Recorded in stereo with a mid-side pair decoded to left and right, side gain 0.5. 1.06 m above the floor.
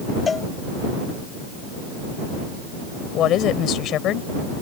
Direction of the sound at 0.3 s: 35° left.